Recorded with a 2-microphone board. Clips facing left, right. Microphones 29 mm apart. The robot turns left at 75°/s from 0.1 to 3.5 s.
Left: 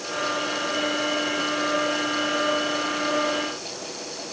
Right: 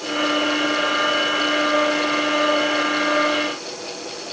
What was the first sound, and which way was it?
Only background noise.